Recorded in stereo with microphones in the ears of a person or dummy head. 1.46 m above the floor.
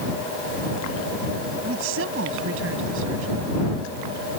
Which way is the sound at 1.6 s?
80° right.